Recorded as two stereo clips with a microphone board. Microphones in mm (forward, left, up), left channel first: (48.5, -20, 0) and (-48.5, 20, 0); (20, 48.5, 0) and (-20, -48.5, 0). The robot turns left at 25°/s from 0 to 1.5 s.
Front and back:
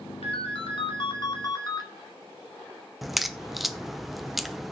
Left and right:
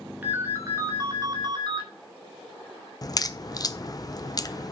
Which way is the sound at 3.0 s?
70° left.